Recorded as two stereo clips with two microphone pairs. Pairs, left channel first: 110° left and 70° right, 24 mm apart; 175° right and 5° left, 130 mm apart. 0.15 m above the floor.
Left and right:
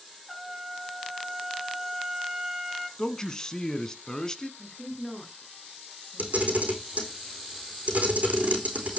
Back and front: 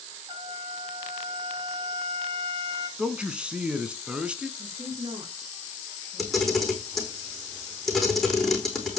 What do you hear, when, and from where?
0.3 s a trumpet: 10° left, 1.4 m
3.0 s a man speaking: 75° left, 1.1 m
4.6 s a woman speaking: 50° left, 2.5 m
6.2 s a camera shutter: 85° right, 4 m